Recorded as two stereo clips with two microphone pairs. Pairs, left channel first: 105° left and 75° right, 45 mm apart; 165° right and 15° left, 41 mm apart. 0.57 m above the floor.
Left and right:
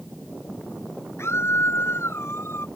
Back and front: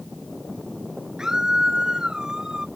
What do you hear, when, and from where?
1.2 s a scream: 90° left